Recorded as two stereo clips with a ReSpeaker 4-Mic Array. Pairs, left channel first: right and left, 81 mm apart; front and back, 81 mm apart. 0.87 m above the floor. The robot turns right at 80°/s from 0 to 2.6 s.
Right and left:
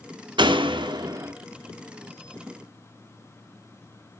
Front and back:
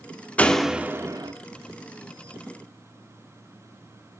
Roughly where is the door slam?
Left.